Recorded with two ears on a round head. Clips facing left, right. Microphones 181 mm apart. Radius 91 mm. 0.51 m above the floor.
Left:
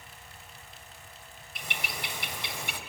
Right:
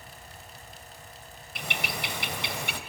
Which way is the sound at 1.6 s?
55° right (ahead or behind).